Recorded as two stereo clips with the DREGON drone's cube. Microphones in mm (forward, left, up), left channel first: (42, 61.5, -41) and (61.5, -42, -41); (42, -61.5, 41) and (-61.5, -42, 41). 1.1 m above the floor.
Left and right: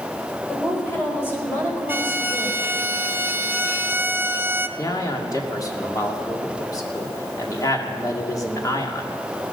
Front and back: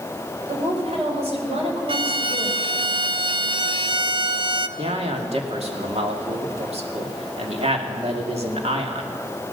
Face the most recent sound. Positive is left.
turn(degrees=155)